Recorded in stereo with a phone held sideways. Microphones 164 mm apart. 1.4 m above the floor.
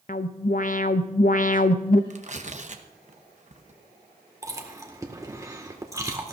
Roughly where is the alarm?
Left.